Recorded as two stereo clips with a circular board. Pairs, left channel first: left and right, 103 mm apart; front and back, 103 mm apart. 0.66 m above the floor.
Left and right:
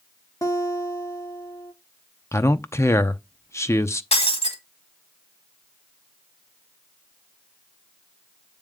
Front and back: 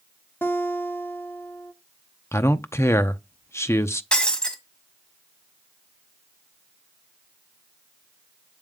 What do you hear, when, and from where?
0.4 s a guitar: 55° left, 1.4 m
2.3 s a man speaking: 45° left, 0.7 m
4.1 s breaking glass: 80° left, 1.8 m